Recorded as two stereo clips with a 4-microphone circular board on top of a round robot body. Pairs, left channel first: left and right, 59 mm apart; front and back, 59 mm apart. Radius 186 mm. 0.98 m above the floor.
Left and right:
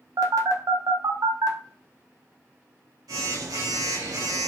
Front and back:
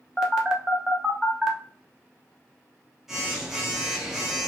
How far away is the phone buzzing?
About 0.6 m.